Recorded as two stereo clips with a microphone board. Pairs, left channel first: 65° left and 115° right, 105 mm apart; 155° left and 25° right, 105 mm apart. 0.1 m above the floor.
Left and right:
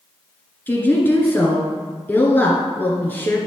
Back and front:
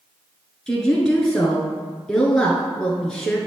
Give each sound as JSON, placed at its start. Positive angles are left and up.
{"t": 0.7, "sound": "a woman speaking", "azimuth_deg": 85, "distance_m": 1.3}